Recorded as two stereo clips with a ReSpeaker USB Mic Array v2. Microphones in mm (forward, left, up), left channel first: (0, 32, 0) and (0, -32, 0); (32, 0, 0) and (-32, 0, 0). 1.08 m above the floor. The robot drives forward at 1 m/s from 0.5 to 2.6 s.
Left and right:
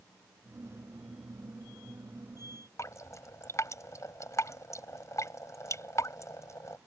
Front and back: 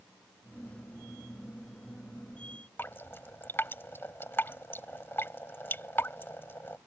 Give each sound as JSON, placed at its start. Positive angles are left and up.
{"t": 2.8, "sound": "dripping", "azimuth_deg": 55}